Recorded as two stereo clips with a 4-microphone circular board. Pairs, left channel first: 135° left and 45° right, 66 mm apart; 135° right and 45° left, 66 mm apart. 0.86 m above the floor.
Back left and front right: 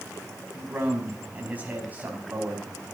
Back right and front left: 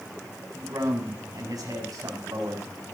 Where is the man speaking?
20° left, 5 m.